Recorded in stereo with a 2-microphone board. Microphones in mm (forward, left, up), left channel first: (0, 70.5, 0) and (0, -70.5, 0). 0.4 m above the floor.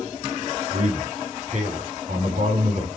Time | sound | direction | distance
0.7 | a man speaking | 65° right (ahead or behind) | 3.5 m